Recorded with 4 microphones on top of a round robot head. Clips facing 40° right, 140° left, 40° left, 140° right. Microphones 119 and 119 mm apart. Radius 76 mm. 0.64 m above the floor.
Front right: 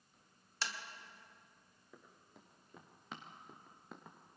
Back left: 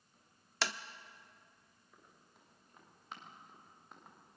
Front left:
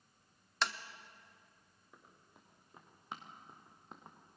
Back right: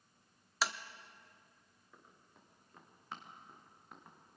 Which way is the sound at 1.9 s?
40° right.